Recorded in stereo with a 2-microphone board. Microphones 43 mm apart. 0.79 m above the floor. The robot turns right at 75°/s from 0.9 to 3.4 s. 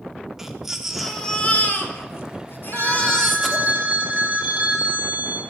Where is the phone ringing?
90° right, 3 m; by 5.4 s 40° right, 3 m.